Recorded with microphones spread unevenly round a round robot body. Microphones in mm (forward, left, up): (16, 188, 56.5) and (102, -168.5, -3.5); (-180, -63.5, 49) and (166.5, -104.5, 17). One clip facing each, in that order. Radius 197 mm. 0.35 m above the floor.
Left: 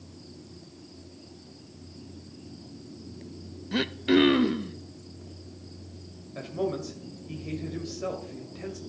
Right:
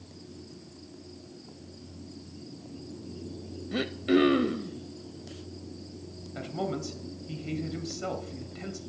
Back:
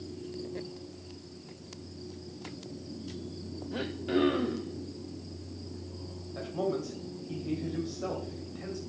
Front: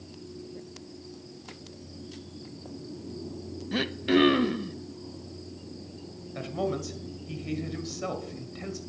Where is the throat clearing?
25° left, 0.5 m.